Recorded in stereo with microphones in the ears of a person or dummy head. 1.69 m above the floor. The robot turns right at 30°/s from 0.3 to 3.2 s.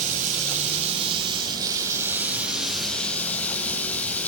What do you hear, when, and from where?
0.0 s running water: 70° right, 1.2 m; by 4.3 s 15° left, 1.2 m